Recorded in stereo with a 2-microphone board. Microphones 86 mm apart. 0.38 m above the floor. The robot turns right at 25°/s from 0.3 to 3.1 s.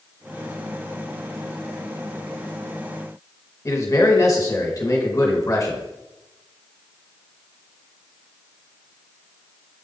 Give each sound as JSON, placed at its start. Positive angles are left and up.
{"t": 3.6, "sound": "a man speaking", "side_deg": 40, "distance_m": 1.2}